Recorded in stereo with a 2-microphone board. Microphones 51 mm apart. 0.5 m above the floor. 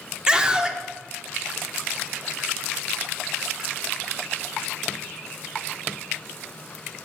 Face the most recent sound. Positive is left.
turn(degrees=-20)  # may be behind; listen again after turning